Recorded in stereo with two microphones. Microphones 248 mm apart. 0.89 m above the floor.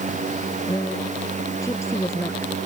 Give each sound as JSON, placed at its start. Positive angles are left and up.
{"t": 0.7, "sound": "a woman speaking", "side_deg": 15}